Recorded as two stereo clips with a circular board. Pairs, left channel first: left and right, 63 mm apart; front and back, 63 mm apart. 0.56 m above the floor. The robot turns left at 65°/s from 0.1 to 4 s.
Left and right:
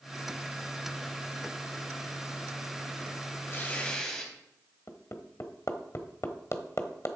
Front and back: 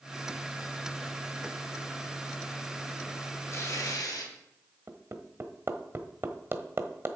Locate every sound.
3.5 s tearing paper: 45° left, 3 m; by 4.3 s 10° left, 3 m
4.9 s hammering: 130° left, 1.1 m